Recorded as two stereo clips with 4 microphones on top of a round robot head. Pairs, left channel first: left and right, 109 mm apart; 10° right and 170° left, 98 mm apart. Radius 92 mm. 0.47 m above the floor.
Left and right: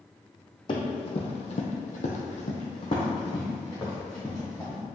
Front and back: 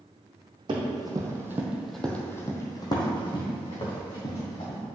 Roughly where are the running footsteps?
Behind left.